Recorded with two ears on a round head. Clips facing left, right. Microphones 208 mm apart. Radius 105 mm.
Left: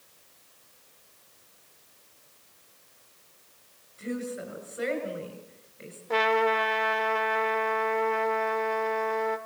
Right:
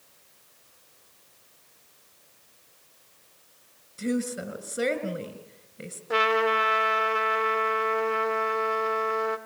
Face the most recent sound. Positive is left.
turn(degrees=-10)  # may be behind; listen again after turning